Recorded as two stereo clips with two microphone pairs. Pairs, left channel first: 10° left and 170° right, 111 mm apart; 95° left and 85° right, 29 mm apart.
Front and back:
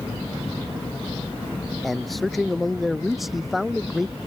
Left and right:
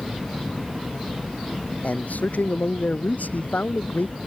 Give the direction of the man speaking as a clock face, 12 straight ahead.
9 o'clock.